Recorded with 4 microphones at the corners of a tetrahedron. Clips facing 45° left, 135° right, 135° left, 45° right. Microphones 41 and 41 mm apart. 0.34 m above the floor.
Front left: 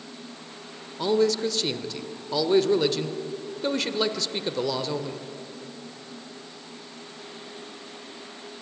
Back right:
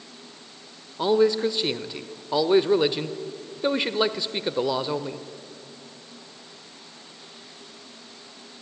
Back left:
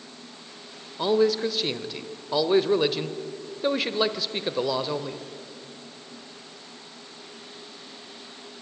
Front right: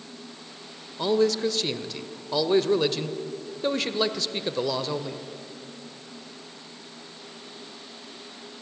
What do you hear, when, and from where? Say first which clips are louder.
1.0 s a man speaking: back right 2 dB, back left 1 dB; 165° right, 0.8 m